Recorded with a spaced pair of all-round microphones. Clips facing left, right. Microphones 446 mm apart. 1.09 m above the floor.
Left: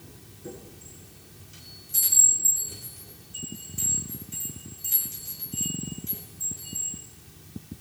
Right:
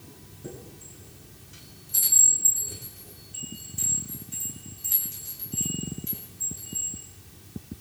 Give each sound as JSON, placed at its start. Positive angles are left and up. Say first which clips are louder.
{"t": 0.4, "sound": "a chime", "louder": "even", "side_deg": -70, "distance_m": 9.5}